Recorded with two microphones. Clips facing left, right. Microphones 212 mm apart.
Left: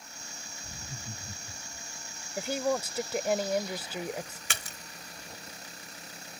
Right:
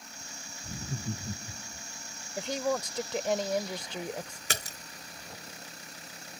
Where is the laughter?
60° right (ahead or behind); by 1.8 s 50° right (ahead or behind).